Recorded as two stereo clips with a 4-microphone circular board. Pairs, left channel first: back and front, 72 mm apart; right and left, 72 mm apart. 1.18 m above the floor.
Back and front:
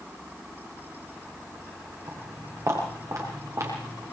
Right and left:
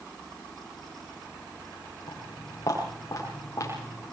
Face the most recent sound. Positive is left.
turn(degrees=-40)